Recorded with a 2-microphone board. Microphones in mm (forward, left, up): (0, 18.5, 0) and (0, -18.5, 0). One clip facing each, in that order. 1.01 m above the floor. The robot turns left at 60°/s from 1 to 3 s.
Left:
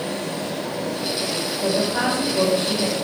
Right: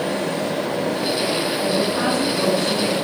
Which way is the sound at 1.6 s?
120° left.